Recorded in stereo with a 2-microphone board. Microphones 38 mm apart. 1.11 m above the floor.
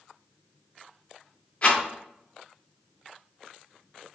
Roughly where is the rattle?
Left.